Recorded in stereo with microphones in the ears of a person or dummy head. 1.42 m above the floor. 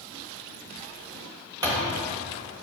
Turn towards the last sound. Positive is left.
turn(degrees=-15)  # may be behind; listen again after turning